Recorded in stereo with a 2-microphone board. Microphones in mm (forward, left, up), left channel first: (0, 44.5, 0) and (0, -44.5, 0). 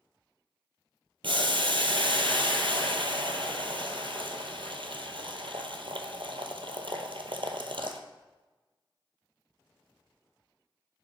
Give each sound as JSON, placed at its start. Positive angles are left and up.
{"t": 1.2, "sound": "boiling", "side_deg": -75, "distance_m": 0.8}